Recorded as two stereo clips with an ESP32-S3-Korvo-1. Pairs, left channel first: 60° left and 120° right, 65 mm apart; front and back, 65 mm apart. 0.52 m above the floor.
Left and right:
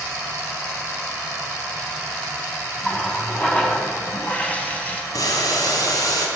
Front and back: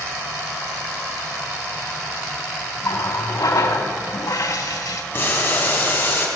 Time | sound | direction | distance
2.8 | a running tap | 5° right | 2.5 m
5.1 | boiling | 50° left | 4 m